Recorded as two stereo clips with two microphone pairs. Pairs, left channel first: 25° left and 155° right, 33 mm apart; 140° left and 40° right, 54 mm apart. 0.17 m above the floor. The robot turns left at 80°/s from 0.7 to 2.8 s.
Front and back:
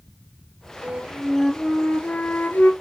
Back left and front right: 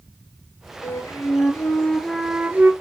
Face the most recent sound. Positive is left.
turn(degrees=5)